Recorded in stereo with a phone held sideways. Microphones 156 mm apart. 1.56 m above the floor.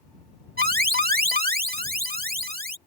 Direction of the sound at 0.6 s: 75° right (ahead or behind).